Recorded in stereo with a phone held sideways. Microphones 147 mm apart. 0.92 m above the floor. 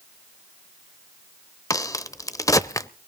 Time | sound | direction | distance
1.7 | a crack | 20° left (ahead or behind) | 0.7 m